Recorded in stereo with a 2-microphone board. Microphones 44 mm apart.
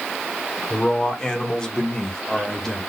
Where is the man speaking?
15° left (ahead or behind), 1.2 m.